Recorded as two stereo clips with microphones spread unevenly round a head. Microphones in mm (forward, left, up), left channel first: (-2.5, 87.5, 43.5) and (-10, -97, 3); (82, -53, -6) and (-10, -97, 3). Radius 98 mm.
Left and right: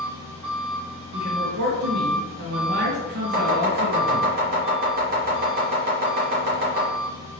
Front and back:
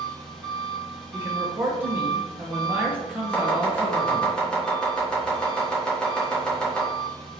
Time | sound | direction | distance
0.0 | an engine running | 60° right | 1.7 m
1.1 | a man speaking | 80° right | 0.9 m
3.3 | chopping | 55° right | 1.6 m